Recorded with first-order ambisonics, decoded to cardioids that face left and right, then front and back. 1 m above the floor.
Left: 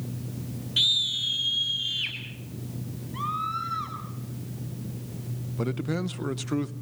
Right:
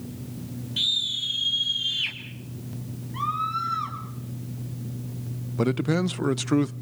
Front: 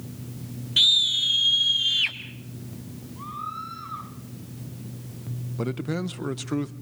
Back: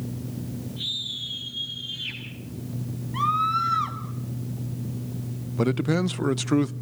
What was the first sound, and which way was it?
A scream, 15° left.